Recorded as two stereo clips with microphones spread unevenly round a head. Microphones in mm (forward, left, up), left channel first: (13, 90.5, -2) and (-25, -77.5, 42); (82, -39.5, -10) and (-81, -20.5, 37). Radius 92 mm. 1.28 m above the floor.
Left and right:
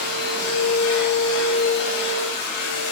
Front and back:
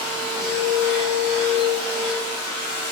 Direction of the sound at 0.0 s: 80° left.